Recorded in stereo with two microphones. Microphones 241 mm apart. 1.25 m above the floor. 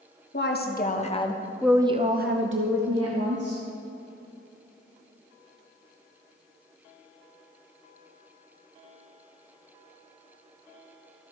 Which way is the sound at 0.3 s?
45° left (ahead or behind).